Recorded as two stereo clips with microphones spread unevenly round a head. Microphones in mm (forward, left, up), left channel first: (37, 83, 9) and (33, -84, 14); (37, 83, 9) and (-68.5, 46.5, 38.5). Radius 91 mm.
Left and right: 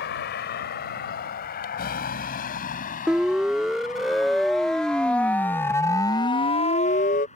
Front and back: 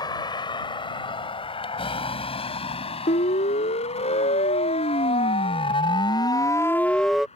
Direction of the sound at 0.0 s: 70° left.